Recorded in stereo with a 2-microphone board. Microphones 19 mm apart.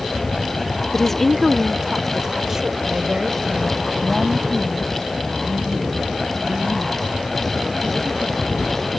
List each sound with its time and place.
0.9 s a woman speaking: 25° left (ahead or behind); by 8.5 s 55° right (ahead or behind)